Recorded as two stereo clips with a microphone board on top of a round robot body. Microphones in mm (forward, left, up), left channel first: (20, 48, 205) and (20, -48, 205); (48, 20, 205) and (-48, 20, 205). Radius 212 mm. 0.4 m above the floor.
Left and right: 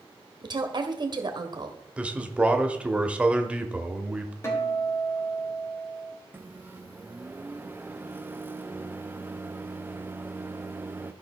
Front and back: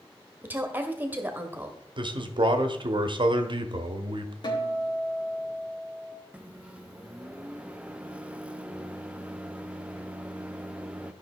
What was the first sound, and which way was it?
A woman speaking, 115° right.